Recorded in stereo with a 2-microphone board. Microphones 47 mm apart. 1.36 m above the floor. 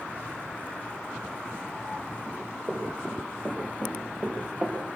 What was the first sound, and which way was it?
Running footsteps, 20° right (ahead or behind).